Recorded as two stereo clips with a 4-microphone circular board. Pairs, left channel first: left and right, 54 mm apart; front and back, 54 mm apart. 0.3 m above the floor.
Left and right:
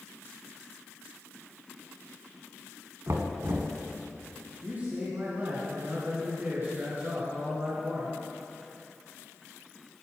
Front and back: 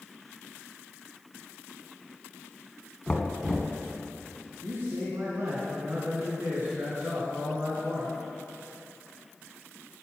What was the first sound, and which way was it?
Knocking, 80° right.